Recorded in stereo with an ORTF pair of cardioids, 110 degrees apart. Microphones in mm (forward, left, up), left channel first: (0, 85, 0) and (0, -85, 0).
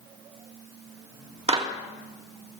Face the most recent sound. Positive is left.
turn(degrees=-35)